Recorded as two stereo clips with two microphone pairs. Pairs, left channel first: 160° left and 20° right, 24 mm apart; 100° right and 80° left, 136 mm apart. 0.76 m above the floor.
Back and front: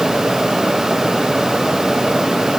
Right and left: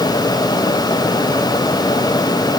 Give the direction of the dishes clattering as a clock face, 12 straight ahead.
No dishes clattering in this recording.